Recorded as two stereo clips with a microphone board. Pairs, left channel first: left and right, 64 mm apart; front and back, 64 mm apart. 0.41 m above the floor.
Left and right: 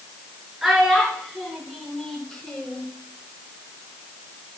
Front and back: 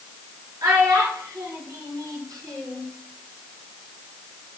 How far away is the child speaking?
About 3 m.